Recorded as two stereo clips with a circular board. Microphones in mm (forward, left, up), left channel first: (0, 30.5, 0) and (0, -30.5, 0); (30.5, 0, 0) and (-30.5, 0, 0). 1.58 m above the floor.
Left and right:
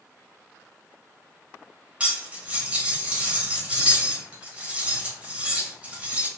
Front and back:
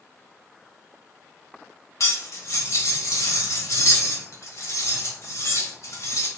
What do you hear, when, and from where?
2.0 s cutlery clinking: 20° right, 1.3 m